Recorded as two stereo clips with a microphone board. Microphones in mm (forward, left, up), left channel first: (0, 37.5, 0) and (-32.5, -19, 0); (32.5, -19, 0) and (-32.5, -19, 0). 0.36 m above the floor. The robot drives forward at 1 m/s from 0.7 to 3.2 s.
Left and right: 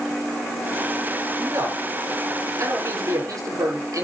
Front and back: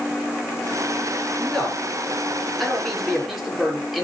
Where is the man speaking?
75° right, 7.5 m; by 4.0 s 90° right, 7 m.